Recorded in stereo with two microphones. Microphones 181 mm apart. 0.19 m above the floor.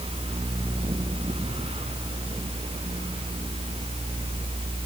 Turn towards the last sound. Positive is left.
No sound to turn to.